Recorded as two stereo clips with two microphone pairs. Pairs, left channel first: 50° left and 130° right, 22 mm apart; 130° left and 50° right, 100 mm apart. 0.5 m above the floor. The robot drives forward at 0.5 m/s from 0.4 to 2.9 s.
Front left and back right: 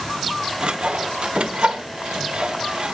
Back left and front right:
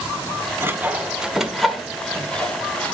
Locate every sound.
0.6 s sawing: 110° right, 0.8 m; by 2.9 s 155° right, 1.6 m